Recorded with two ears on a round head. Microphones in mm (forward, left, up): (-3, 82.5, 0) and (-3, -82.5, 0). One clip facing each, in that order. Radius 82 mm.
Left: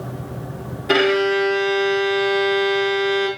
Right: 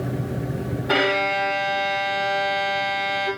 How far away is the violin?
About 1.8 m.